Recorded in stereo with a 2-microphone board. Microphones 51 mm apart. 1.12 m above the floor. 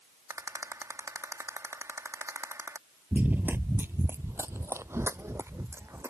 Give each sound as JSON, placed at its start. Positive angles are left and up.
{"t": 0.3, "sound": "a rattle", "side_deg": -85}
{"t": 3.1, "sound": "running footsteps", "side_deg": -30}